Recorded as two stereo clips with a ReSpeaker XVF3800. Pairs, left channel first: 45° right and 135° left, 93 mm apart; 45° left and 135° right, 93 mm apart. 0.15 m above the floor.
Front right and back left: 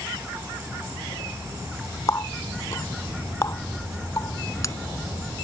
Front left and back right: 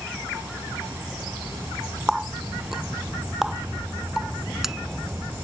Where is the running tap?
55° right.